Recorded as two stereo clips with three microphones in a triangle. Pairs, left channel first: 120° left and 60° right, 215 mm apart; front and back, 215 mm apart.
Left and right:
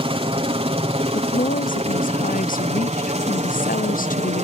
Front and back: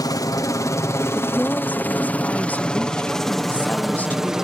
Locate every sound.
0.0 s a helicopter: 50° right; by 4.5 s 95° right
1.1 s a woman speaking: 80° left